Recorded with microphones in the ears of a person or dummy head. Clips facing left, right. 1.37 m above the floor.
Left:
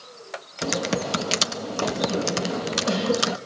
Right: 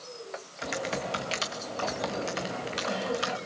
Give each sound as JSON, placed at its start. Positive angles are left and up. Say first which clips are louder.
{"t": 0.6, "sound": "typing on a keyboard", "louder": "left 7 dB", "side_deg": 65, "distance_m": 1.3}